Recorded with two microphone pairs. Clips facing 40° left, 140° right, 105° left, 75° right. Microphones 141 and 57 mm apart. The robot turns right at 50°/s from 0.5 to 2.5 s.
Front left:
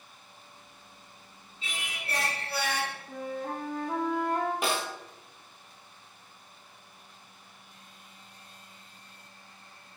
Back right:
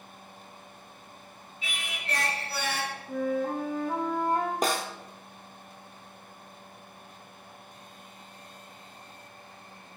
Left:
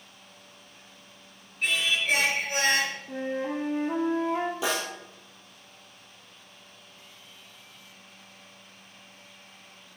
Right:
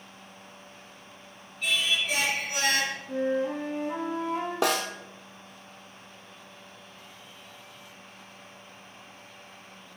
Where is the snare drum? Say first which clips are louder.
Back right 2 dB, right 3 dB; 95° right, 1.2 m.